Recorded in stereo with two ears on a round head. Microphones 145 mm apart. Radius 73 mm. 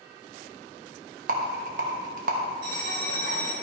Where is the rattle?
50° right (ahead or behind), 1.2 m.